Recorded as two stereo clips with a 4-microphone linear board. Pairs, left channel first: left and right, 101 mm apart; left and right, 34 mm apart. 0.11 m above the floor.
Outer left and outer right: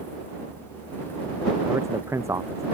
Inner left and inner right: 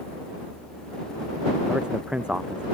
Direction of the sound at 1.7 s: 30° right (ahead or behind).